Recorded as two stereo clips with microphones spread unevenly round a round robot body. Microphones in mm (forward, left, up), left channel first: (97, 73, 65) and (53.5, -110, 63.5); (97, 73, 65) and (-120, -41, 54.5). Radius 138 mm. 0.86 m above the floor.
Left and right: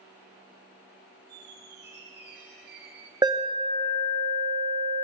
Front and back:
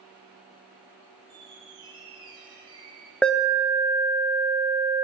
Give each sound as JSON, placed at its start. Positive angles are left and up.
{"t": 1.3, "sound": "a squeak", "azimuth_deg": -80, "distance_m": 1.6}
{"t": 3.2, "sound": "an alarm", "azimuth_deg": -60, "distance_m": 1.1}